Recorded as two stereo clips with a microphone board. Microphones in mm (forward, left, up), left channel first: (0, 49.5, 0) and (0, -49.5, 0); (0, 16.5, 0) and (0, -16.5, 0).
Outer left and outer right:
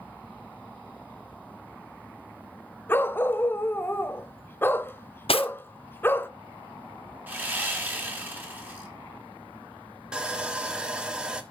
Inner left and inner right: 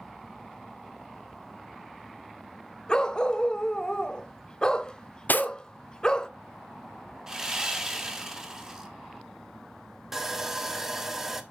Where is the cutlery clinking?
70° left (ahead or behind), 0.6 m.